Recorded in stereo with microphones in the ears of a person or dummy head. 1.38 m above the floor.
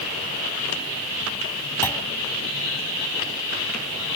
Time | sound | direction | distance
1.8 | a clunk | 10° left (ahead or behind) | ?